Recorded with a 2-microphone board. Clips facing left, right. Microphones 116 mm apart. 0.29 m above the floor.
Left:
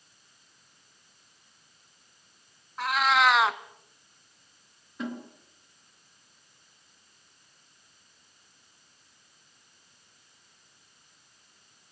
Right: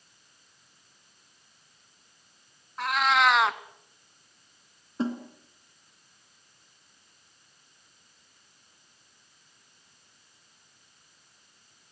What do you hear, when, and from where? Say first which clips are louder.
2.8 s a cat meowing: even; centre (ahead or behind), 1.0 m
5.0 s a snare drum: right 5 dB; 30° right (ahead or behind), 3 m